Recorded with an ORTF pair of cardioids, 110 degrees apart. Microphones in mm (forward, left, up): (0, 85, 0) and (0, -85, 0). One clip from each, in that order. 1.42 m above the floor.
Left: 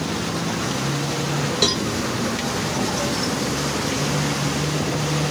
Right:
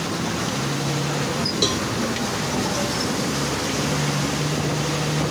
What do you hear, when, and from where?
1.6 s a cowbell: 5° left, 0.8 m